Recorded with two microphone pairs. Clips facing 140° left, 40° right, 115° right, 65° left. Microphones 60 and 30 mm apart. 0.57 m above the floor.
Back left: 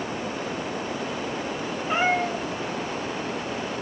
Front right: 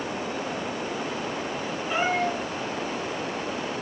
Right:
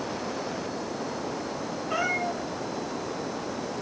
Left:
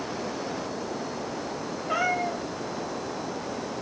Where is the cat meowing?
75° left, 5.5 m.